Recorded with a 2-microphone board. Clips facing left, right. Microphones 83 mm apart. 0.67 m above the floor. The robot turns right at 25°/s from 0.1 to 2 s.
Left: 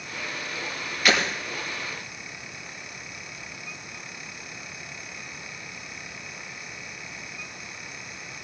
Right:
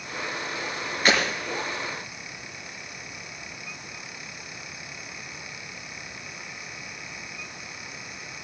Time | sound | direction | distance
1.1 | breaking glass | 35° right (ahead or behind) | 6.5 m